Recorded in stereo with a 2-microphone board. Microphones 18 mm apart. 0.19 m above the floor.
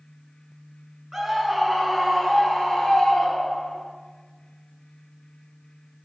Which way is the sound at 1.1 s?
10° right (ahead or behind).